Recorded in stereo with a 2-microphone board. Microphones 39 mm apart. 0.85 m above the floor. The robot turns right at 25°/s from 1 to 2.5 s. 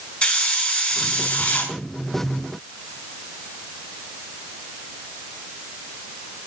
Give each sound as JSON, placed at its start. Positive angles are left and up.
{"t": 0.2, "sound": "a hiss", "side_deg": 30, "distance_m": 5.0}